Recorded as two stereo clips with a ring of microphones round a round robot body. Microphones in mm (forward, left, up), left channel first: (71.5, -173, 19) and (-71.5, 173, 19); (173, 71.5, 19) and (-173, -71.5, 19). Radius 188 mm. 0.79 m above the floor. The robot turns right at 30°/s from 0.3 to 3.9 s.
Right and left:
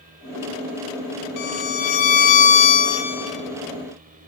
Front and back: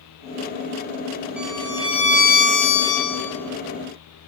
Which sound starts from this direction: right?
A violin, at 1.4 s.